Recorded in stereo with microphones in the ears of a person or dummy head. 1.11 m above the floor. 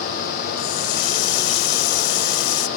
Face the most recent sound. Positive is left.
turn(degrees=50)  # may be behind; listen again after turning